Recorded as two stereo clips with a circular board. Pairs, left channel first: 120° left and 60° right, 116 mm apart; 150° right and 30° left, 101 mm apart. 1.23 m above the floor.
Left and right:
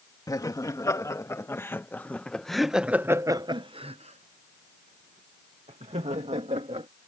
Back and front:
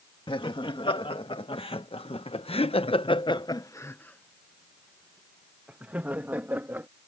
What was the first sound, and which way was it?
Laughter, straight behind.